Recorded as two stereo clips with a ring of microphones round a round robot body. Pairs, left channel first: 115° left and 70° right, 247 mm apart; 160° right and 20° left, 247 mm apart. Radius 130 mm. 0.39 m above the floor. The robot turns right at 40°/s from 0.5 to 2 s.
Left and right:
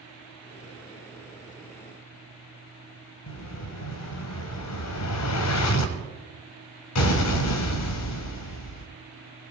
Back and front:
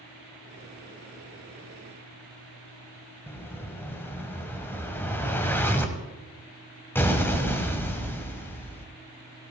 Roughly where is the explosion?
Behind left.